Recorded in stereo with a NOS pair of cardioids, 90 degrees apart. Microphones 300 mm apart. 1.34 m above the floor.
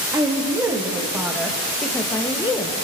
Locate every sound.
0.1 s a woman speaking: 10° right, 2.5 m; by 2.8 s 25° left, 1.2 m